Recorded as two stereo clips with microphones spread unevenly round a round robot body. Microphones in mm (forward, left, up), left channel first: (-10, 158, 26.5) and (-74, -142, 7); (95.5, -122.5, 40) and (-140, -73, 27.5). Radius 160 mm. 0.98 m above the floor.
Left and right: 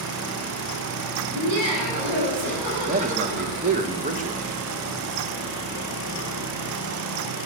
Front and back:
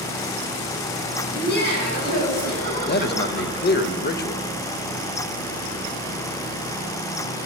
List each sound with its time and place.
1.3 s laughter: 60° right, 7 m; by 3.8 s 75° right, 7.5 m
2.9 s a man speaking: 45° right, 1.0 m